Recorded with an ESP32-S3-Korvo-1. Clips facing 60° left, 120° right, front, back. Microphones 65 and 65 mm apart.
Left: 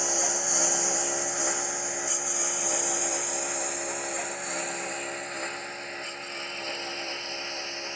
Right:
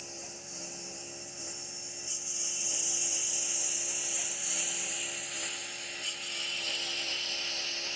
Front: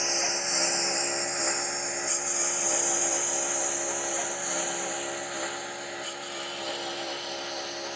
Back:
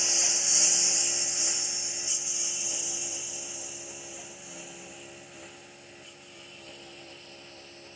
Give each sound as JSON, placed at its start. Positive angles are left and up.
{"t": 0.0, "sound": "a lawn mower", "azimuth_deg": 60}